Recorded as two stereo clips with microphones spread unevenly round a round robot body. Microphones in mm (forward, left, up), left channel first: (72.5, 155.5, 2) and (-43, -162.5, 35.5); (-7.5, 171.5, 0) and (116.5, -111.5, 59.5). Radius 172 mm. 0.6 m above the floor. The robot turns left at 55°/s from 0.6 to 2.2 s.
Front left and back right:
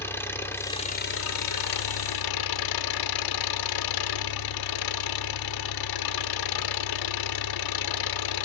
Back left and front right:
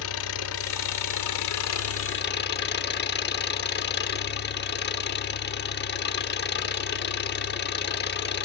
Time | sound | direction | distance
0.0 | an engine running | 150° left | 0.9 m